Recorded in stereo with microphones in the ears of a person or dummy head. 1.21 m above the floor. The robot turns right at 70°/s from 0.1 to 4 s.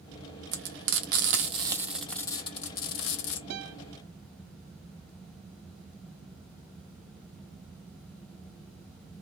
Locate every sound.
0.5 s frying: 65° right (ahead or behind), 1.3 m; by 3.4 s 65° left (ahead or behind), 1.3 m
3.5 s a guitar: 65° right (ahead or behind), 1.3 m; by 3.8 s 75° right (ahead or behind), 1.3 m